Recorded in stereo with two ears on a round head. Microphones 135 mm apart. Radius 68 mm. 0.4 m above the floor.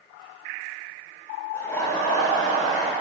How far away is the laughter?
About 0.8 m.